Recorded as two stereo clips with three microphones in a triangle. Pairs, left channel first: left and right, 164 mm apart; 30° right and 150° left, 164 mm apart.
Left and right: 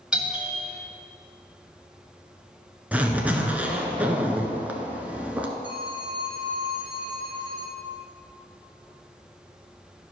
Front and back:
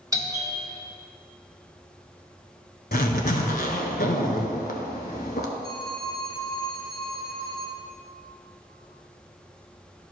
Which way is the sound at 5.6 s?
125° left.